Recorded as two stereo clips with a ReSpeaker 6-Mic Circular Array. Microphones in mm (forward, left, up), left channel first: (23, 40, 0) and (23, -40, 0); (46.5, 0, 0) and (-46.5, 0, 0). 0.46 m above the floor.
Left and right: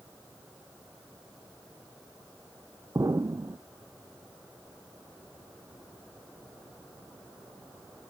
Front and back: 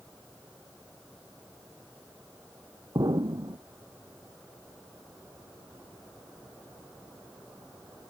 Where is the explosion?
135° right.